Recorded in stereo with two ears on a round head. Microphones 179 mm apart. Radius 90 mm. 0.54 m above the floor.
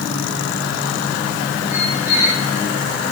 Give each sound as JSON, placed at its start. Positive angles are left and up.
{"t": 1.7, "sound": "a squeak", "side_deg": 25, "distance_m": 6.0}